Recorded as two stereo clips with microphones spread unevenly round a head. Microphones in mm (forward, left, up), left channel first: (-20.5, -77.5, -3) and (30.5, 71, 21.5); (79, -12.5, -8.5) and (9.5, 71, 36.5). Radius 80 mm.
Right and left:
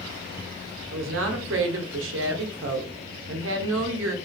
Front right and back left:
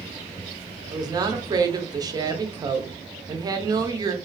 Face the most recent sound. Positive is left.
turn(degrees=65)